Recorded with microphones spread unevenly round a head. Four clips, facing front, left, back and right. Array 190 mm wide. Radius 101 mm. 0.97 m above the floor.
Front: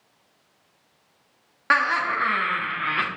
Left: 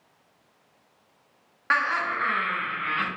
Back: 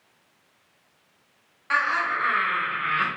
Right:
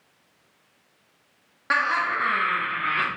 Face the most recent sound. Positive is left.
turn(degrees=-40)